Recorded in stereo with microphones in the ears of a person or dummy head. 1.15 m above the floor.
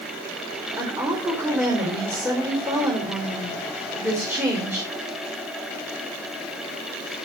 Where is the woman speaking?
5° right (ahead or behind), 5 m.